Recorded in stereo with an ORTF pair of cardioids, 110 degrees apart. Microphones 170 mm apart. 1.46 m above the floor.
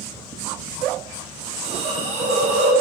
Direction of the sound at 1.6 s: 45° right.